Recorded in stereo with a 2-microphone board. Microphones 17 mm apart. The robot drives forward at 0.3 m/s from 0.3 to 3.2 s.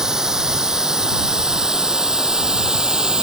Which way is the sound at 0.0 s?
35° right (ahead or behind).